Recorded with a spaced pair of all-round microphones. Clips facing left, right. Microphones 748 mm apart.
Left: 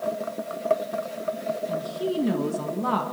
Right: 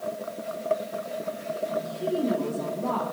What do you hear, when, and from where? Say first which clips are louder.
1.7 s a woman speaking: left 1 dB; 85° left, 3 m